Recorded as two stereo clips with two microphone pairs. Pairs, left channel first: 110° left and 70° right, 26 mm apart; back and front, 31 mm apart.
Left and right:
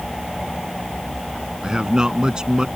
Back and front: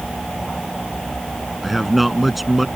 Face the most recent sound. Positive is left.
turn(degrees=-80)